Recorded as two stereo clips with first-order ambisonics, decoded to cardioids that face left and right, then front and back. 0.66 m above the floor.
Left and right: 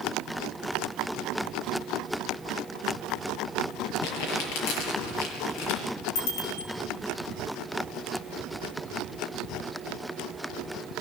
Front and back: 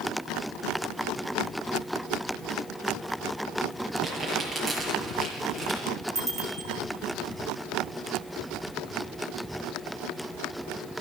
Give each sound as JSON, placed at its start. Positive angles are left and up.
{"t": 4.0, "sound": "crumpling", "azimuth_deg": 90, "distance_m": 6.5}
{"t": 6.2, "sound": "a bicycle bell", "azimuth_deg": 95, "distance_m": 5.0}